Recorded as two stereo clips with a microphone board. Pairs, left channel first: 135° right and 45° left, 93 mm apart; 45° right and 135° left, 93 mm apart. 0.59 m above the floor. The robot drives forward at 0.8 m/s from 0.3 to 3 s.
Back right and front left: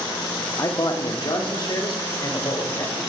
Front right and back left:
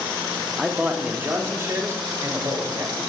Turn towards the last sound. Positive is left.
turn(degrees=-175)